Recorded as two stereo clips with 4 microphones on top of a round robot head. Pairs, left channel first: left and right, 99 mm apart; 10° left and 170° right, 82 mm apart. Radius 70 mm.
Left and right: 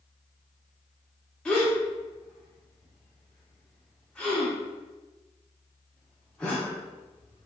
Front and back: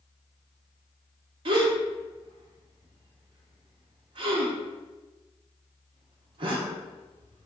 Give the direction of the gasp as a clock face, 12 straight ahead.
6 o'clock.